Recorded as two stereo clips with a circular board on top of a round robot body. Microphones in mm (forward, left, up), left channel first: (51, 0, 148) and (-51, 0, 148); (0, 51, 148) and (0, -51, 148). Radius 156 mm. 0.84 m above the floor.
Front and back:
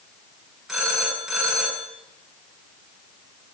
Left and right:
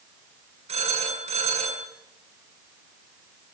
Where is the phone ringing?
90° right, 6.5 m.